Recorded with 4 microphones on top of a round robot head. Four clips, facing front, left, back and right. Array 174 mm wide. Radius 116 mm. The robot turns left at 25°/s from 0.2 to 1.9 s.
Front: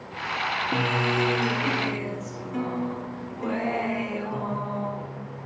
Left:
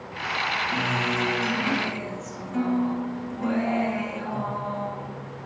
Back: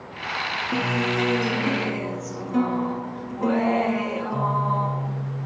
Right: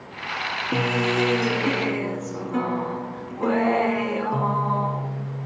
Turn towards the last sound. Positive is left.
turn(degrees=-110)